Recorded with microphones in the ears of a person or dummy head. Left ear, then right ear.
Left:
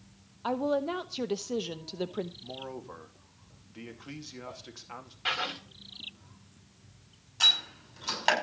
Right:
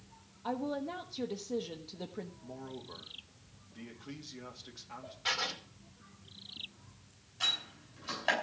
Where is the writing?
20° left (ahead or behind), 4 m.